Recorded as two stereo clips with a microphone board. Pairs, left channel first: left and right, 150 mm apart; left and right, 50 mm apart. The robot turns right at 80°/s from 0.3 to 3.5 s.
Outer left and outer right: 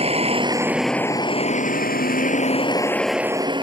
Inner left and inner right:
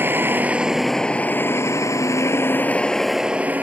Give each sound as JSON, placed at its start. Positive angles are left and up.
{"t": 0.0, "sound": "a vehicle", "azimuth_deg": -45}